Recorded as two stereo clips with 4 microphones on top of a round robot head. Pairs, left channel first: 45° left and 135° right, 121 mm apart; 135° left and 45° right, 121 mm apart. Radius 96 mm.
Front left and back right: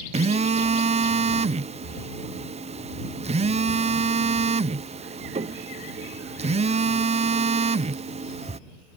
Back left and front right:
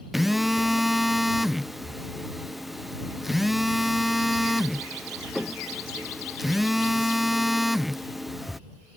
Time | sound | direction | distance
0.1 | a phone buzzing | 135° right | ?